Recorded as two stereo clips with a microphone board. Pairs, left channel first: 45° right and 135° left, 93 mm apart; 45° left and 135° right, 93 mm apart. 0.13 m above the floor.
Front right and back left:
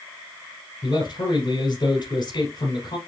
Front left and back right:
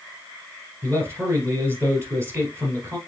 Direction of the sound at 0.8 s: 80° right.